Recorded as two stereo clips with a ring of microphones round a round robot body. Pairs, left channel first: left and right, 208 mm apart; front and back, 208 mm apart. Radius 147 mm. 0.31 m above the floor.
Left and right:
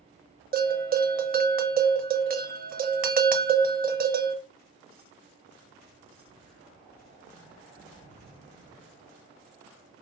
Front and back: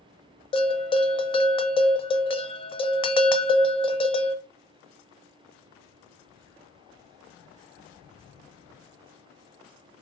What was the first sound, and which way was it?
A bell, 60° right.